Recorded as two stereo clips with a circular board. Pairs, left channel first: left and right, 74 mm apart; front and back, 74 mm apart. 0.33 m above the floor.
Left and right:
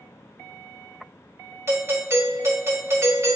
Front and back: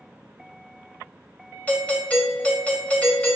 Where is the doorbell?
60° right, 1.7 m.